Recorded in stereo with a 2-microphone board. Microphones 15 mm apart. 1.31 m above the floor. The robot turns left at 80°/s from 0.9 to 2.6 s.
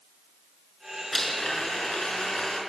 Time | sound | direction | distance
1.1 | a blender | 165° left | 6 m